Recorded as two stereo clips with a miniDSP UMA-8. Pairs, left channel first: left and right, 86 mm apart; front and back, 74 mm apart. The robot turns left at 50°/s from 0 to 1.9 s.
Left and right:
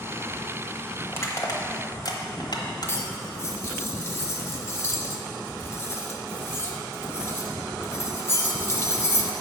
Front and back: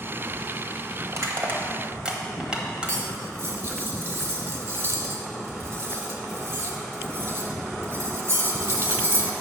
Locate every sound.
1.1 s crushing: 145° left, 1.1 m; by 3.0 s 105° left, 1.1 m
2.9 s cutlery clinking: 140° left, 0.9 m